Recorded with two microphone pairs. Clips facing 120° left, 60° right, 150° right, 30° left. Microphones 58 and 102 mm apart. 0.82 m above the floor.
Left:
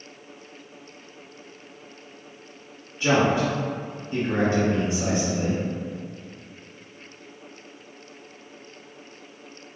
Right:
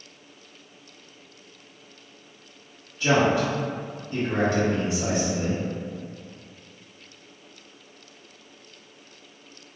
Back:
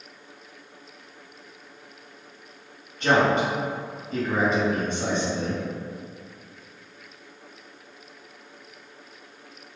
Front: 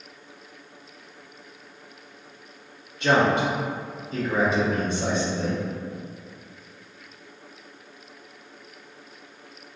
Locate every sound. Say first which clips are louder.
3.0 s a man speaking: even, even; straight behind, 1.8 m